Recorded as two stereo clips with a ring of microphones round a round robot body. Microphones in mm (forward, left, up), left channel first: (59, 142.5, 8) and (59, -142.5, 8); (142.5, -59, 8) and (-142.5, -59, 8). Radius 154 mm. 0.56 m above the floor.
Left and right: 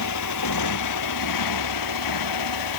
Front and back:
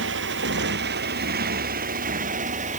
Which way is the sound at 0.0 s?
125° left.